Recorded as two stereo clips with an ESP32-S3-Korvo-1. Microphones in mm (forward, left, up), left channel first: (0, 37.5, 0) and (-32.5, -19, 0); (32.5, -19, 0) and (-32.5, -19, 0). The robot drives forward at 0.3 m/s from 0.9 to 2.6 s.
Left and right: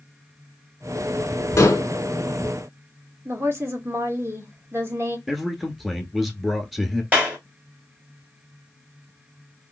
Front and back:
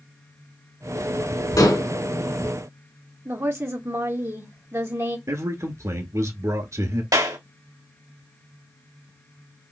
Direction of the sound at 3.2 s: 155° right.